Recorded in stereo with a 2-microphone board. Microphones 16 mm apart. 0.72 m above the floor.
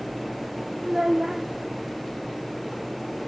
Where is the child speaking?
45° right (ahead or behind), 0.6 m.